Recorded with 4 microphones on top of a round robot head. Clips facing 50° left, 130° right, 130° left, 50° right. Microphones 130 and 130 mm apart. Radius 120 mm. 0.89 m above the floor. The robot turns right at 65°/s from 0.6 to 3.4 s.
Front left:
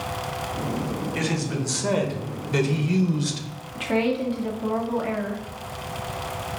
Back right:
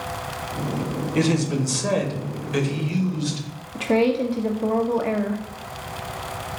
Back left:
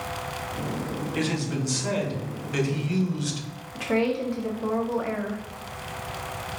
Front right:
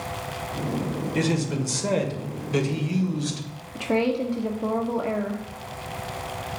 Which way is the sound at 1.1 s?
90° right.